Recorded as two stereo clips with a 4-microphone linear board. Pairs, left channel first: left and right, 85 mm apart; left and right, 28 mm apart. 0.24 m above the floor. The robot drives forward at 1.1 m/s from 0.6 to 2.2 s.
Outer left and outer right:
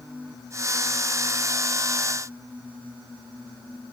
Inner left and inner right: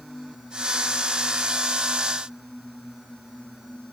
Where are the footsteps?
I don't hear footsteps.